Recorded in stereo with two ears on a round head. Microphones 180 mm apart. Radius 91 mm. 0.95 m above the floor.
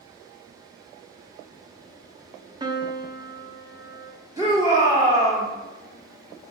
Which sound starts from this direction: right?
A piano, at 2.6 s.